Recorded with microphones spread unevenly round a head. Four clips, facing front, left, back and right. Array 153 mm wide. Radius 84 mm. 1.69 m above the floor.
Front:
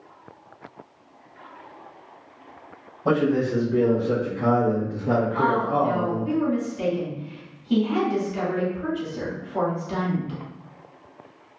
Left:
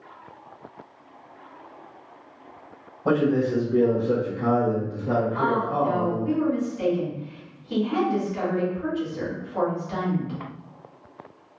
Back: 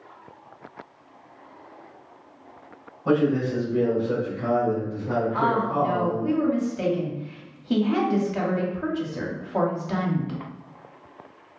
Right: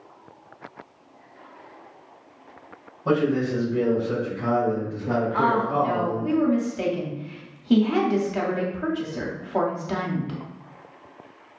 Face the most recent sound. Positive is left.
turn(degrees=-120)